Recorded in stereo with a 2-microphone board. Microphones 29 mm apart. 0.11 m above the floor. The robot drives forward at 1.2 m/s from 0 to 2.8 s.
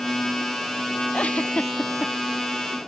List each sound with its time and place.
1.1 s a giggle: 55° left (ahead or behind); by 2.1 s 45° left (ahead or behind)